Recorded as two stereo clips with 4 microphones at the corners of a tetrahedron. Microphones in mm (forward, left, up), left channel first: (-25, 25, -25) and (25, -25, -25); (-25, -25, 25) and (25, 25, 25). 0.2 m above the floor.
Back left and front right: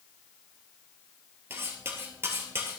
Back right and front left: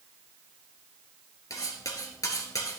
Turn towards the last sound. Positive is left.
turn(degrees=-100)